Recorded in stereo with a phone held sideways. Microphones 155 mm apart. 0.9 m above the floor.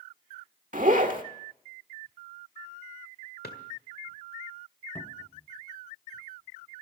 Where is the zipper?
60° right (ahead or behind), 1.5 m.